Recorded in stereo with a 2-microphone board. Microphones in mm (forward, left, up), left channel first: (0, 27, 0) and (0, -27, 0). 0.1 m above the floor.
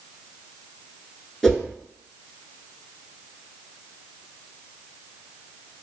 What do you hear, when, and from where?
1.4 s a whoosh: 10° left (ahead or behind), 0.9 m